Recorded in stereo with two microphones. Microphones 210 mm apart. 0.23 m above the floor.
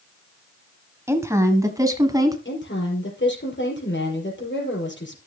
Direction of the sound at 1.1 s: 10° right (ahead or behind).